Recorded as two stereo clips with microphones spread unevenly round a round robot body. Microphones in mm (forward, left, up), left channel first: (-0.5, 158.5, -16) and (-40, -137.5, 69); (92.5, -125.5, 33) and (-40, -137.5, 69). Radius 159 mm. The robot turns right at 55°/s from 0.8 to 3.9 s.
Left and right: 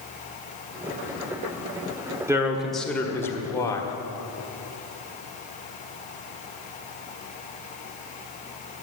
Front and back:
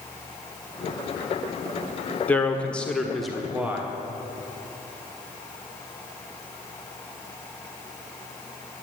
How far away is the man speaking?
About 1.4 m.